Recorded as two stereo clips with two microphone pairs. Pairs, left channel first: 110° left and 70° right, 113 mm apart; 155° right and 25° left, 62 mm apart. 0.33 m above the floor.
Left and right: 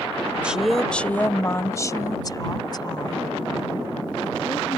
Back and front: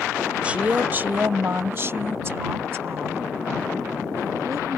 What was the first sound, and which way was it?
A woman speaking, straight ahead.